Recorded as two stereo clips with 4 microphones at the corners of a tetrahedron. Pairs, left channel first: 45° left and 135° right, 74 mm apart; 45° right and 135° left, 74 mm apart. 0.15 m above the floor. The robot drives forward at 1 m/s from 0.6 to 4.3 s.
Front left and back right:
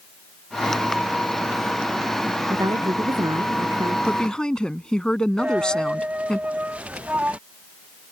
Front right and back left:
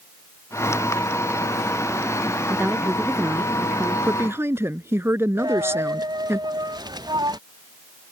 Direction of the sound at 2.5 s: 160° right.